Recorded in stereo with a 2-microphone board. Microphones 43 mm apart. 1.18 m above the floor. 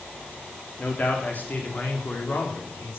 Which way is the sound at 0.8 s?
35° left (ahead or behind).